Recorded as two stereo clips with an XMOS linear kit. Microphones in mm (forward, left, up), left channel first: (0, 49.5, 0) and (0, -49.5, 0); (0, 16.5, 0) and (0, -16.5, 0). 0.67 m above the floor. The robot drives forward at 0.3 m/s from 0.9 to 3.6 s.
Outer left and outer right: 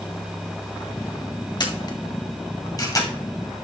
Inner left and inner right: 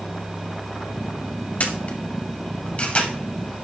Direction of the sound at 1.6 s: 45° left (ahead or behind).